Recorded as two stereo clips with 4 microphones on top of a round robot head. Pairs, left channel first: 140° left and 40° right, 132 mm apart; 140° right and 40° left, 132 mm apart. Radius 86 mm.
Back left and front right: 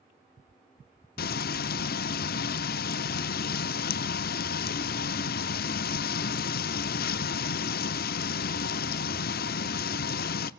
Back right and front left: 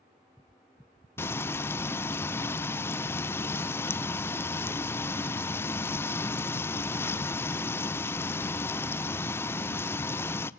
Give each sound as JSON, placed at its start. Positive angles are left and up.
{"t": 1.2, "sound": "frying", "azimuth_deg": 145, "distance_m": 0.5}